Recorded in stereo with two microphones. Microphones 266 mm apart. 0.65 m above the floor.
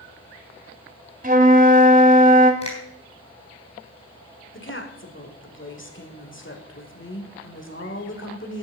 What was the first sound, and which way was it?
A flute, 30° right (ahead or behind).